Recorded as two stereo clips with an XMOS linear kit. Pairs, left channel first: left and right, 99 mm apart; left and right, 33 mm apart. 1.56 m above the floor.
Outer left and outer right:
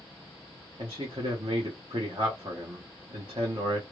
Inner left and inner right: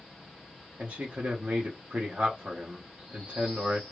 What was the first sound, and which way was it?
A man speaking, 55° right (ahead or behind).